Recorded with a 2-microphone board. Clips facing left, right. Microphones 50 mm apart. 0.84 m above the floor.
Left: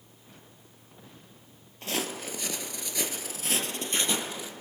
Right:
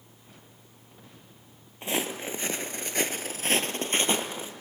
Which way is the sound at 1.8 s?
25° right (ahead or behind).